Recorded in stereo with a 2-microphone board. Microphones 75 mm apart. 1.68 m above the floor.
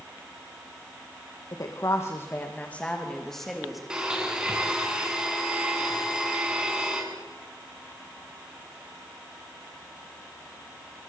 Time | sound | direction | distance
1.5 | a woman speaking | 55° left (ahead or behind) | 2.5 m
3.9 | a blender | 10° right (ahead or behind) | 7.5 m